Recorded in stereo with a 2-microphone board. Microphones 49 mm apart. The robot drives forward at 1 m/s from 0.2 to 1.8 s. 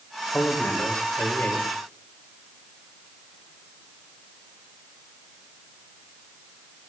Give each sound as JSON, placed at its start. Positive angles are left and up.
{"t": 0.3, "sound": "a man speaking", "side_deg": 30, "distance_m": 6.0}